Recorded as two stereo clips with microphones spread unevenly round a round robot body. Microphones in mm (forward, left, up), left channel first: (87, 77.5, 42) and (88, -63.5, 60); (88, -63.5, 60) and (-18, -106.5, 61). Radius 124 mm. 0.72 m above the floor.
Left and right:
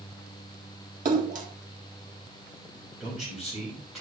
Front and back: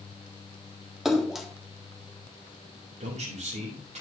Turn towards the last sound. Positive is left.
turn(degrees=175)